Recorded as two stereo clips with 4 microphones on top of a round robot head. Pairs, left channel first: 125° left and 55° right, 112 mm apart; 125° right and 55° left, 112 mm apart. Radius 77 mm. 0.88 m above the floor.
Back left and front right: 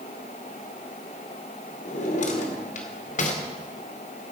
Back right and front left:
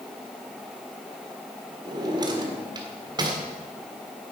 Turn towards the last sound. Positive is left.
turn(degrees=110)